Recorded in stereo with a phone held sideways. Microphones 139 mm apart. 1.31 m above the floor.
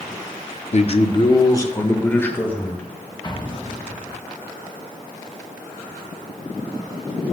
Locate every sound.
0.7 s a man speaking: 50° left (ahead or behind), 0.6 m; by 3.1 s 10° left (ahead or behind), 2 m
3.2 s an explosion: 30° left (ahead or behind), 1.1 m